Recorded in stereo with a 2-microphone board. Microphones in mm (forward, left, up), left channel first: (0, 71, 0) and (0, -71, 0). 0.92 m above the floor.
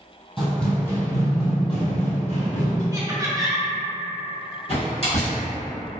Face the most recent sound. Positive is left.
turn(degrees=45)  # may be behind; listen again after turning